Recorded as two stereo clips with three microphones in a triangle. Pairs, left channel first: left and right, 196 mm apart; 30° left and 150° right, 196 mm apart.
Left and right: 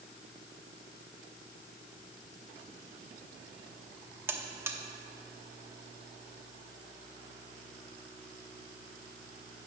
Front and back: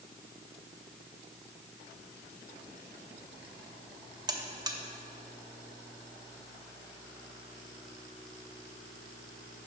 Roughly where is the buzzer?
Behind right.